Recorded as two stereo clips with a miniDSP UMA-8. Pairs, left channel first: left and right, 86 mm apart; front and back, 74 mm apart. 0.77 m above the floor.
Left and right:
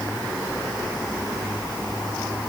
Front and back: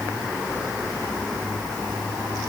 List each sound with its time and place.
Only background noise.